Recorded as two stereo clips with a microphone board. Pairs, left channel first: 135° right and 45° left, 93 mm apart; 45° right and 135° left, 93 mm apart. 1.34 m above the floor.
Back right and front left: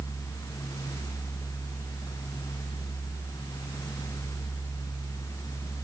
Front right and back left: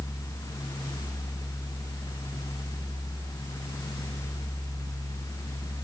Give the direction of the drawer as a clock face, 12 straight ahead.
No drawer in this recording.